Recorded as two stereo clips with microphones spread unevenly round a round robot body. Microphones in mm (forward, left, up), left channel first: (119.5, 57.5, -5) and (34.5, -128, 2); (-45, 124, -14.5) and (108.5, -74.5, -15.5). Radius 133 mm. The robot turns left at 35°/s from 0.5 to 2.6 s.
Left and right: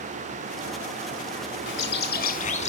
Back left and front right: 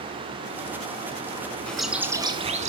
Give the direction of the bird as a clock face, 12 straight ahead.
11 o'clock.